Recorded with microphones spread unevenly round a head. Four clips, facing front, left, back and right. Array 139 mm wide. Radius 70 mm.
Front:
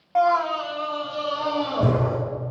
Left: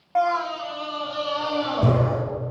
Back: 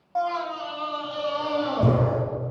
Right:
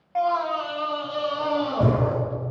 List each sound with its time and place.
0.1 s a scream: 20° left, 0.6 m; by 2.1 s 75° right, 2.5 m